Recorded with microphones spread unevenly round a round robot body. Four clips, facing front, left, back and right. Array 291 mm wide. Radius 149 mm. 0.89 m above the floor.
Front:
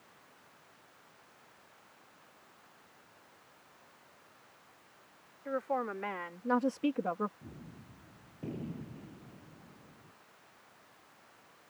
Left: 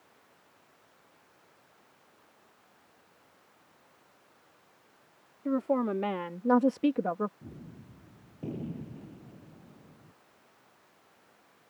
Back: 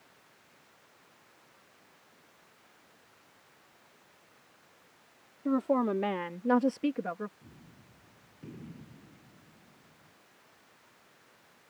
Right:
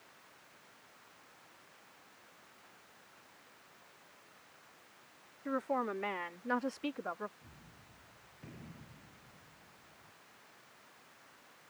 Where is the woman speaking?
145° left; by 7.3 s 75° left.